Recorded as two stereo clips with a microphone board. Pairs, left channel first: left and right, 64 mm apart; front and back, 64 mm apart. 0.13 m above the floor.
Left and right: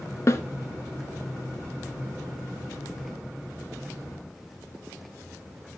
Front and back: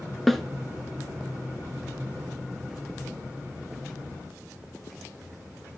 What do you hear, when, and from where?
0.3 s a snare drum: 85° left, 0.9 m